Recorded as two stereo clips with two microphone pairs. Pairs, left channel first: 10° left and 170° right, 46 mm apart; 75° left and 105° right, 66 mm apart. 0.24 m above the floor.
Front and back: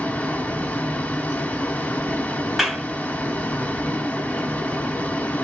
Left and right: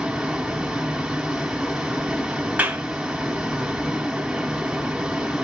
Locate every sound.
0.0 s running water: 30° right, 1.1 m
2.6 s a clap: 85° right, 1.1 m